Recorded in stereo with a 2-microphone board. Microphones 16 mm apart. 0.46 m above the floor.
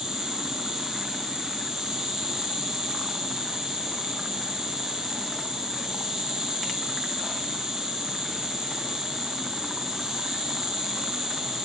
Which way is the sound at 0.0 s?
70° right (ahead or behind).